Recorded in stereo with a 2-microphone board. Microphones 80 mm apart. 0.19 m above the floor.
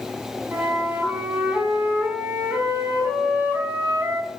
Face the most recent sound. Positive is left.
turn(degrees=-25)  # may be behind; listen again after turning